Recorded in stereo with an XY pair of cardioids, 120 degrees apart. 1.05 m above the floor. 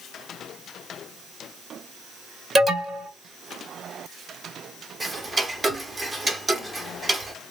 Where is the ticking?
20° right, 0.6 m.